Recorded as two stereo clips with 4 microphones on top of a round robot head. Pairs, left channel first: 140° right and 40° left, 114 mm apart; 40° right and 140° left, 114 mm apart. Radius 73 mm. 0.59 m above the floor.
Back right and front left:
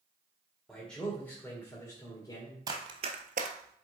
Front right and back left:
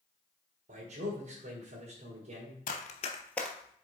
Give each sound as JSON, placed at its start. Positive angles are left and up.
{"t": 0.7, "sound": "a man speaking", "azimuth_deg": 130, "distance_m": 1.9}
{"t": 2.7, "sound": "running footsteps", "azimuth_deg": -20, "distance_m": 1.2}